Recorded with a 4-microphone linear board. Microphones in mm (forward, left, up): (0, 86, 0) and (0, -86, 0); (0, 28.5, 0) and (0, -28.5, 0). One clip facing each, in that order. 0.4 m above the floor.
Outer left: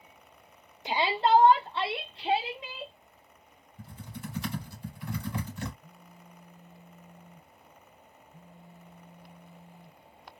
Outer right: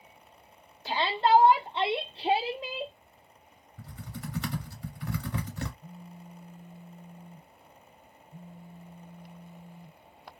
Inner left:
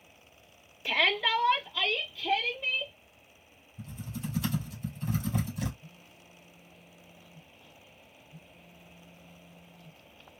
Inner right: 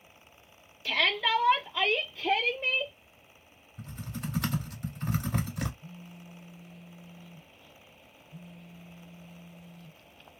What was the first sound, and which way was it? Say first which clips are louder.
A shout: even, even; 15° left (ahead or behind).